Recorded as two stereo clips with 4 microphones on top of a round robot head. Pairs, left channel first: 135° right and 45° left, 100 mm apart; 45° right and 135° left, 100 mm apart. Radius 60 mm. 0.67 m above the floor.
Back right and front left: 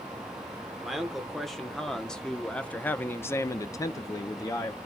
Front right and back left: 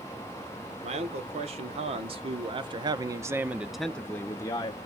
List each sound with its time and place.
0.8 s a man speaking: 135° left, 1.6 m; by 4.8 s 85° right, 0.8 m